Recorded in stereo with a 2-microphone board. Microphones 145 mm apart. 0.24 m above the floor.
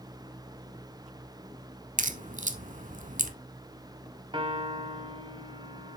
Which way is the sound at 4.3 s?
35° right (ahead or behind).